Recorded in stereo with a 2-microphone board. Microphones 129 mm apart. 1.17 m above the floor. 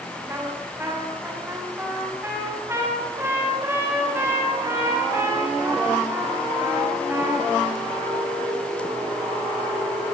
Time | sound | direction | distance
0.3 | a trumpet | 15° right (ahead or behind) | 6.5 m